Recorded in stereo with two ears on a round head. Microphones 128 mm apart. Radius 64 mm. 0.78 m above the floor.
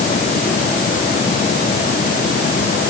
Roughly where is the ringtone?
No ringtone in this recording.